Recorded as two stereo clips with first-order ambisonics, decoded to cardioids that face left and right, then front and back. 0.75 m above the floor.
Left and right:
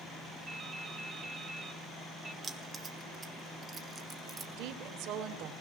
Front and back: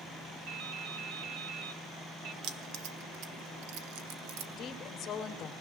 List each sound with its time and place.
0.5 s dripping: 155° right, 2.5 m
2.4 s keys jangling: 160° right, 1.9 m
4.6 s a woman speaking: 65° right, 2.5 m